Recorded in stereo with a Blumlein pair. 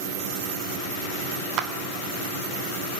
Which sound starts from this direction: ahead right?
A clap, at 1.6 s.